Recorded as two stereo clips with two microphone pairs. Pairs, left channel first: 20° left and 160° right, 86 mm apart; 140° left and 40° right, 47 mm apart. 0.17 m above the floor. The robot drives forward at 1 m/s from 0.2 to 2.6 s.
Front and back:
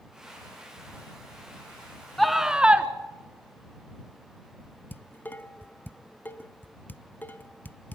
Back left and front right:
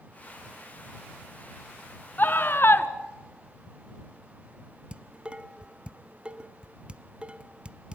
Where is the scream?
110° left, 1.5 m; by 2.9 s 125° left, 1.7 m.